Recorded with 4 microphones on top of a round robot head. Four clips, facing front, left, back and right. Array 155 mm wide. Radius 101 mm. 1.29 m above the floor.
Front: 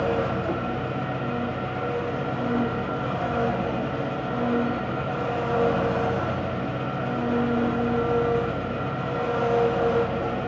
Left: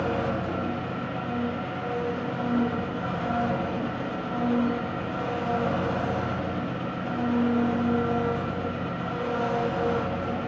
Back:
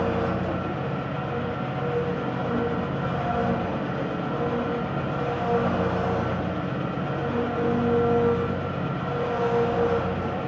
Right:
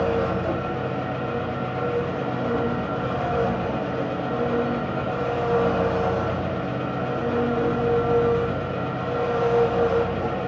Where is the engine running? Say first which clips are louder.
Right 4 dB, front 1 dB; 95° right, 4 m.